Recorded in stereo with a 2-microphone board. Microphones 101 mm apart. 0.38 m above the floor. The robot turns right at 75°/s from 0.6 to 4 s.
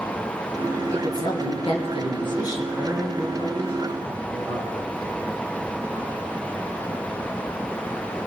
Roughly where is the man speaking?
Behind.